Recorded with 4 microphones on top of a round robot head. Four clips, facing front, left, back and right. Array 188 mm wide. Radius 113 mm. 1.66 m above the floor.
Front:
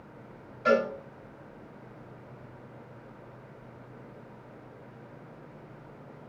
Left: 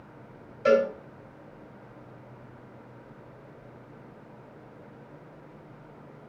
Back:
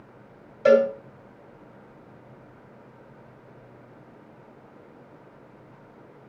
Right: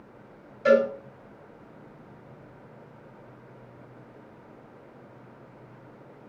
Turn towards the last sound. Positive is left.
turn(degrees=175)